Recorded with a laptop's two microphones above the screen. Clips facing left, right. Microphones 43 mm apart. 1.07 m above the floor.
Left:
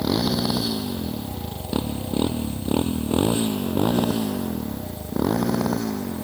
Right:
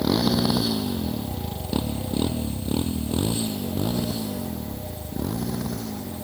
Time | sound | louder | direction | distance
0.0 | a motorcycle | right 1 dB | 5° right (ahead or behind) | ?